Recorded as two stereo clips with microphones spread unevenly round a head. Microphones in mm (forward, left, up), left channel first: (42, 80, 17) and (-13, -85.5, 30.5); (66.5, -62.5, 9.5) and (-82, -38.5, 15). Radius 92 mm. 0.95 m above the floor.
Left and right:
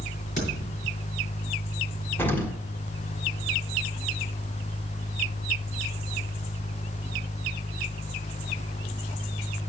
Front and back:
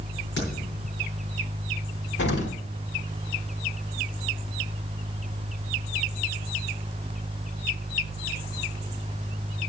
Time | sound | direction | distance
0.4 | a thud | 25° left | 6.5 m
2.2 | an explosion | 5° right | 1.5 m